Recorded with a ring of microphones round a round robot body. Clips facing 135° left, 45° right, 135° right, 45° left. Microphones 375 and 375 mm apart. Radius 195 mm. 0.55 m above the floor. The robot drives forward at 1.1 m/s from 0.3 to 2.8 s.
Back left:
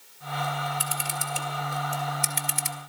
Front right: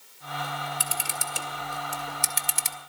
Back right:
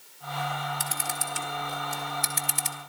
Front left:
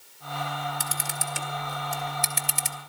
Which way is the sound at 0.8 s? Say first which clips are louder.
Back left 2 dB, even; straight ahead.